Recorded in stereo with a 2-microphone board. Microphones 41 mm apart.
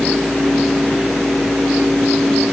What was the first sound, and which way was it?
Only background noise.